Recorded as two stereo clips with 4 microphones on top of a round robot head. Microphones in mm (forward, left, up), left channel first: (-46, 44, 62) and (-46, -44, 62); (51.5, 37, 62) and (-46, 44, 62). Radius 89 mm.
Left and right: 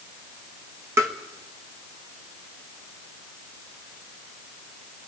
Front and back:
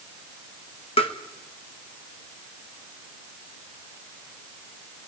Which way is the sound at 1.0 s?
25° right.